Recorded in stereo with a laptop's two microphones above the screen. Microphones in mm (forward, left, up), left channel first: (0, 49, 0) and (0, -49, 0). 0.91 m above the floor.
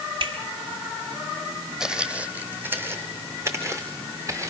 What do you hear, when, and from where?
0.2 s a finger snap: 60° right (ahead or behind), 3.5 m
1.8 s footsteps: 5° right (ahead or behind), 1.5 m; by 4.5 s 35° right (ahead or behind), 3 m